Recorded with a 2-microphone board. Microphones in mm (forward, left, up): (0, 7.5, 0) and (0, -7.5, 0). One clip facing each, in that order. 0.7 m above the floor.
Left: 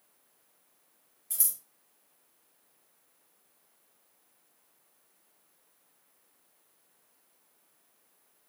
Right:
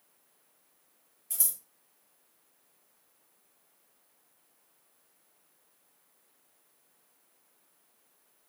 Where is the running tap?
I don't hear a running tap.